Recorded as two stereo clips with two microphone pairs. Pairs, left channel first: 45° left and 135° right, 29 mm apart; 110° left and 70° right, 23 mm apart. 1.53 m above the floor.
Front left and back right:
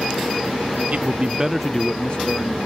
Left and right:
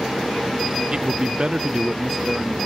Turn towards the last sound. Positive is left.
turn(degrees=20)